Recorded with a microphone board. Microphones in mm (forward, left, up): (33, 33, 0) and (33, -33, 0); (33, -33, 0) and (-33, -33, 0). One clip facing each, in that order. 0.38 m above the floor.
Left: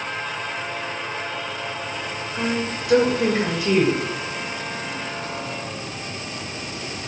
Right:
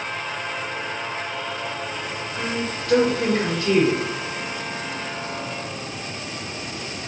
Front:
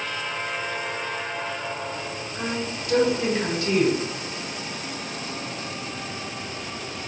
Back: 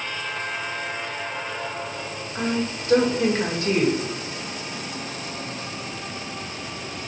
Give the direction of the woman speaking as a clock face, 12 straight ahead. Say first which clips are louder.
Left 3 dB, back 5 dB; 7 o'clock.